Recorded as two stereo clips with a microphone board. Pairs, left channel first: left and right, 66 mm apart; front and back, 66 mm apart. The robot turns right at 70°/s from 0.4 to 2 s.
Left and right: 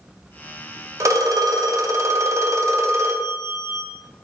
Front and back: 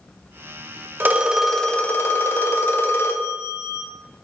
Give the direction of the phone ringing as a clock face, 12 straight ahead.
4 o'clock.